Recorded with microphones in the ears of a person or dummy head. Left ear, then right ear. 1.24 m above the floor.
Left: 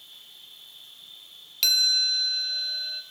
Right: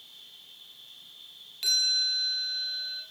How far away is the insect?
About 7 m.